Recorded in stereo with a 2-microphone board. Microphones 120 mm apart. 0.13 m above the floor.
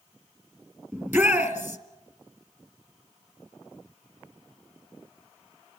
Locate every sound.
0.9 s a shout: 15° right (ahead or behind), 2.5 m